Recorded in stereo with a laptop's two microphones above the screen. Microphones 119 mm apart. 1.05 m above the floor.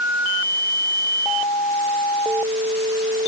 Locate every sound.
Only background noise.